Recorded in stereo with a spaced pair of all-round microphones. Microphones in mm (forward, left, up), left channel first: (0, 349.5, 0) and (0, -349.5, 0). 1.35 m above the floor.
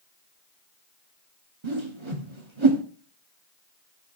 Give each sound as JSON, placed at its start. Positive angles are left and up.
{"t": 1.6, "sound": "a whoosh", "side_deg": -40, "distance_m": 1.5}